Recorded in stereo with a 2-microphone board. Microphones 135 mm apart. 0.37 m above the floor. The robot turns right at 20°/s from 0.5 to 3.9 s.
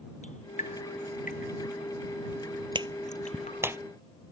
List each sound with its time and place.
0.2 s dripping: 65° left (ahead or behind); by 3.7 s 50° left (ahead or behind)
2.8 s a clap: 35° right (ahead or behind); by 3.8 s 15° right (ahead or behind)